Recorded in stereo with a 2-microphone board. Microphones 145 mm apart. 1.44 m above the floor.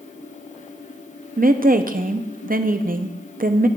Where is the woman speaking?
70° right (ahead or behind), 0.5 m.